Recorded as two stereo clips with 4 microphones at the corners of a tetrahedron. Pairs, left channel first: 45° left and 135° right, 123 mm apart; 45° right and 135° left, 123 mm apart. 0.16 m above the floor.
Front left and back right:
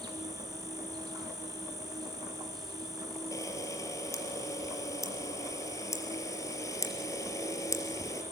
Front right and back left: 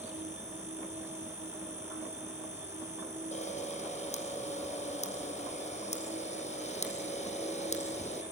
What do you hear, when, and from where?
0.0 s an insect: 165° left, 5 m
3.3 s a camera shutter: 20° right, 4 m